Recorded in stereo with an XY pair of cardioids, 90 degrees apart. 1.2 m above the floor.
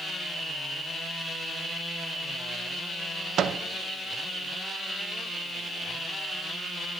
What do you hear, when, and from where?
3.4 s a microwave: 70° right, 0.7 m